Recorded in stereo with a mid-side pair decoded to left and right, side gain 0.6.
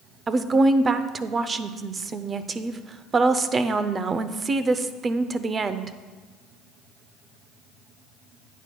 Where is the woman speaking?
30° right, 0.6 m.